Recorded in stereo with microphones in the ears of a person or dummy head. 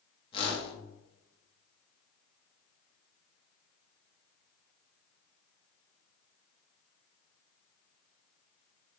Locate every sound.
0.3 s a whoosh: 30° left (ahead or behind), 1.0 m